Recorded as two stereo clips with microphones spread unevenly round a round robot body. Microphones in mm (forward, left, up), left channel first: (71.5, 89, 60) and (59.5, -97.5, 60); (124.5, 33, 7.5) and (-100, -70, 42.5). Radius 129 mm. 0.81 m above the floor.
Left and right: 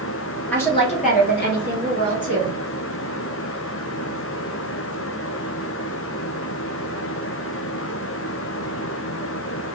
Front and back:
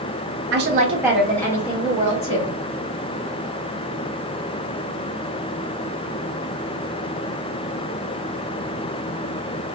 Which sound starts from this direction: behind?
A woman speaking, at 0.5 s.